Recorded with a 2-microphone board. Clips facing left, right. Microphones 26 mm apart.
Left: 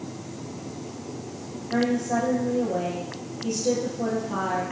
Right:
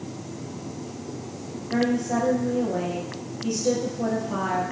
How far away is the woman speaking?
About 3.5 m.